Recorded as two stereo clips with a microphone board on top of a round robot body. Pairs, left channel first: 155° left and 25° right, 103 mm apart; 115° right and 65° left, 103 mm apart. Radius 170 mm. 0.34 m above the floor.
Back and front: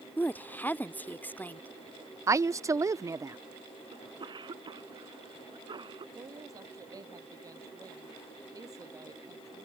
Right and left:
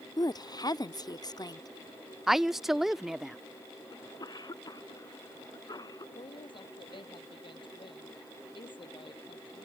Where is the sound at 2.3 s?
15° right.